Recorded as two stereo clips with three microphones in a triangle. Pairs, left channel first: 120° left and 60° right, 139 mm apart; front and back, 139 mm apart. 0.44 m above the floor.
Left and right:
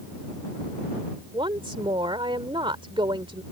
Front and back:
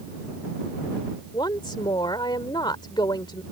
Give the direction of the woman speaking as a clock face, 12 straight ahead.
1 o'clock.